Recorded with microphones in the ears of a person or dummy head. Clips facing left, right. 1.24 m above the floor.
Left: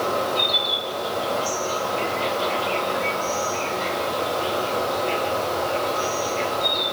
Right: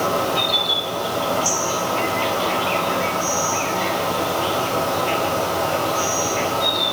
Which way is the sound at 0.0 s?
55° right (ahead or behind).